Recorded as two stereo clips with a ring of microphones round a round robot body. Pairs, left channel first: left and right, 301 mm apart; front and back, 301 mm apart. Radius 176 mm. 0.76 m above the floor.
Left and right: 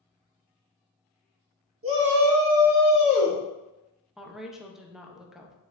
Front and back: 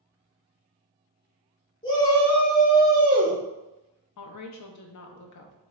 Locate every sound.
1.8 s a shout: 70° right, 1.2 m; by 3.4 s 125° left, 1.1 m
4.2 s a woman speaking: straight ahead, 0.6 m